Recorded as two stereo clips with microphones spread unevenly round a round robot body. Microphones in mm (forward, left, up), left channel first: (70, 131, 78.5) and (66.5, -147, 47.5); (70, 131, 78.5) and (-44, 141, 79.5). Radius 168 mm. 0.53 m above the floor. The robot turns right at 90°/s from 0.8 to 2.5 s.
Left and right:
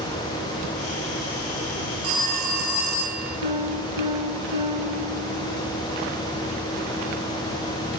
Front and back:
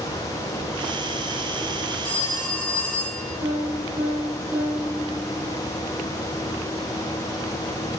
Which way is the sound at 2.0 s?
115° right.